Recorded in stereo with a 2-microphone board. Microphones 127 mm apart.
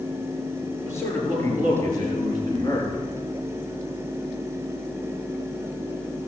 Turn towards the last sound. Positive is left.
turn(degrees=35)  # may be behind; listen again after turning